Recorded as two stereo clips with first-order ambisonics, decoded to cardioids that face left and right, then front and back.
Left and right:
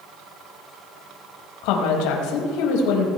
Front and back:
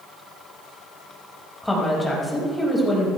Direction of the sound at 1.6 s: 85° left.